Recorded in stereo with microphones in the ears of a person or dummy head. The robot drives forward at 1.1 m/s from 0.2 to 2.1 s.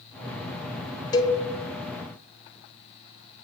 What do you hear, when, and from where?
1.1 s a cowbell: 25° left (ahead or behind), 0.7 m; by 1.4 s 30° left (ahead or behind), 0.6 m